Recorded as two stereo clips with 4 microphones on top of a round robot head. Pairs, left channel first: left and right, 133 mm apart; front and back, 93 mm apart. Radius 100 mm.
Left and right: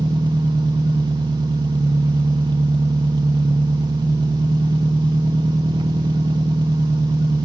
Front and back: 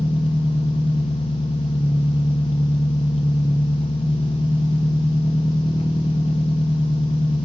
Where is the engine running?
30° right, 0.9 m.